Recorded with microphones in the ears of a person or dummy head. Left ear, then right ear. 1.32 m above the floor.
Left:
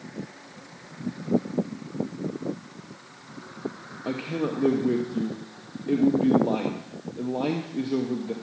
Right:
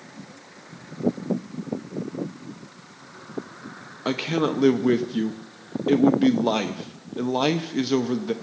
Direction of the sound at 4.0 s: 40° right (ahead or behind).